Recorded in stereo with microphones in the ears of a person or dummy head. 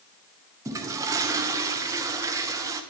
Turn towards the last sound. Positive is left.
turn(degrees=-15)  # may be behind; listen again after turning